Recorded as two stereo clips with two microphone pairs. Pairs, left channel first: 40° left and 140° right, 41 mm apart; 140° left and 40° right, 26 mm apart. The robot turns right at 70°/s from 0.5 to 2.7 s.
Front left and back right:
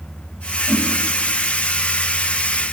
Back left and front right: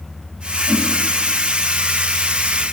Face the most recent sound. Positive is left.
turn(degrees=170)